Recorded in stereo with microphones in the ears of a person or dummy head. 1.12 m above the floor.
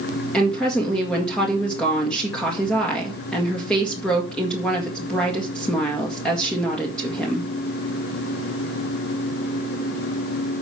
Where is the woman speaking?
5° left (ahead or behind), 1.8 m.